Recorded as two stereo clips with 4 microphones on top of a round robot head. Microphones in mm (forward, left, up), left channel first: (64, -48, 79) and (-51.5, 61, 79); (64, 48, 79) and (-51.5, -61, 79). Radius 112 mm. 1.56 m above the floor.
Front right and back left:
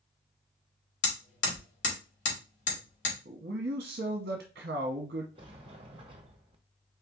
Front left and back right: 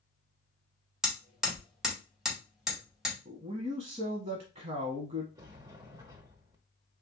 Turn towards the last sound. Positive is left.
turn(degrees=170)